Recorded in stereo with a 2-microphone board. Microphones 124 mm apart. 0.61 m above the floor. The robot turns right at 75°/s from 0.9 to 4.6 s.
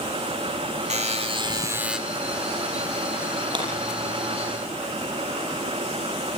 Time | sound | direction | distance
0.9 | a buzzer | 85° right | 1.7 m
3.5 | breaking glass | 35° right (ahead or behind) | 7 m